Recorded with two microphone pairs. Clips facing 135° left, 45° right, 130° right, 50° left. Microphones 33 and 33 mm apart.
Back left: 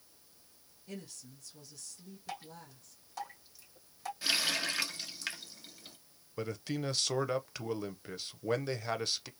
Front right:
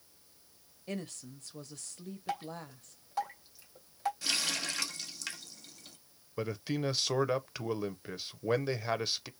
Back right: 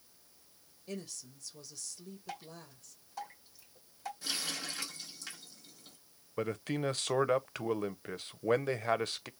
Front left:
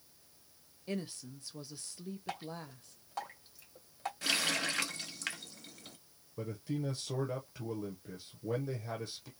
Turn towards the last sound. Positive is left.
turn(degrees=-130)